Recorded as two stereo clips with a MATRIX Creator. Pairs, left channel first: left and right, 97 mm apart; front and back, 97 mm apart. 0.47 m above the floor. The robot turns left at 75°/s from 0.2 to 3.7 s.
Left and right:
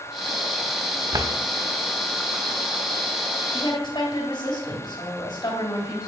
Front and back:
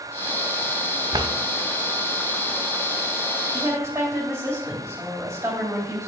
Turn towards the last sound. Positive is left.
turn(degrees=120)